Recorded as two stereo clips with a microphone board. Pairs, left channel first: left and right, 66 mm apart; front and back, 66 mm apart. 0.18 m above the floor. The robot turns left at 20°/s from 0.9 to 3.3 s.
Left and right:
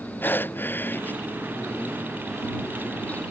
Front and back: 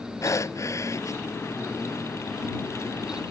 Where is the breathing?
35° left; by 1.2 s 25° left.